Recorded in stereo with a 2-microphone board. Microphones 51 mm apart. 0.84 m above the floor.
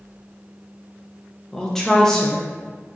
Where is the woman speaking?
10° left (ahead or behind), 0.6 m.